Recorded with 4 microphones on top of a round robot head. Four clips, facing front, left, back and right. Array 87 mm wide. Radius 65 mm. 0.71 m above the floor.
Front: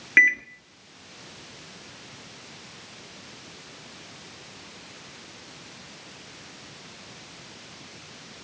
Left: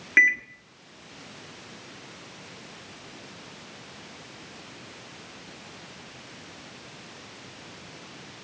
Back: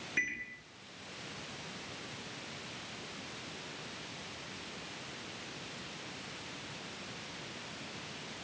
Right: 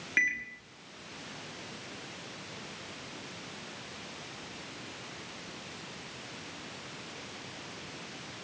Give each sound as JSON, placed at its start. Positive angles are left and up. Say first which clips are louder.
{"t": 0.2, "sound": "a microwave", "louder": "left 10 dB, front 18 dB", "azimuth_deg": 35, "distance_m": 1.7}